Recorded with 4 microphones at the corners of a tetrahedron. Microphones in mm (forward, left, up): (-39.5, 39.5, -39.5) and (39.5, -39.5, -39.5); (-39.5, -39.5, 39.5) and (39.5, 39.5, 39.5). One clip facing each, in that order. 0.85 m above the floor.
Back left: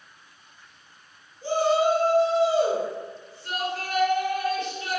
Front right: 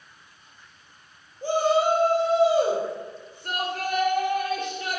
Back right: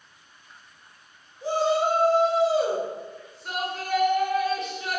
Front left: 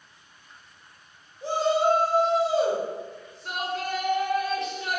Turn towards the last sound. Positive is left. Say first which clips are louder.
# even, even
turn(degrees=-45)